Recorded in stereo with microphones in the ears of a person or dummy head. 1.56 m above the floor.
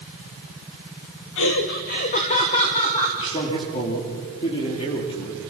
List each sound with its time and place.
1.4 s laughter: 70° left (ahead or behind), 0.9 m; by 3.1 s 25° left (ahead or behind), 2.5 m
3.2 s a man speaking: 30° left (ahead or behind), 3 m